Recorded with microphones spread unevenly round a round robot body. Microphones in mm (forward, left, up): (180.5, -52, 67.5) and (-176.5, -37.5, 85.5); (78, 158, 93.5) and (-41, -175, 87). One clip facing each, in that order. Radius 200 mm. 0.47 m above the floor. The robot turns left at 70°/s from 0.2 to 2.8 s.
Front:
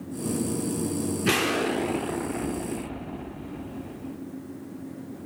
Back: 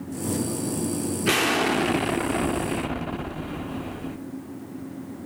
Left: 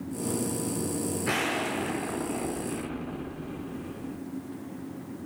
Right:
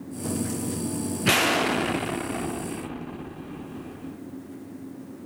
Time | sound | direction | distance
1.2 | an explosion | 80° right | 0.6 m